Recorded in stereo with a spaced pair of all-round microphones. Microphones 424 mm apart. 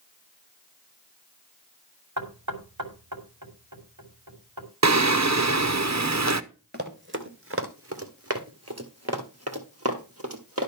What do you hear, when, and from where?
2.2 s knocking: 45° right (ahead or behind), 2.5 m
4.8 s singing: 40° right (ahead or behind), 0.7 m
6.7 s running footsteps: 25° right (ahead or behind), 1.4 m; by 10.7 s 35° right (ahead or behind), 2.5 m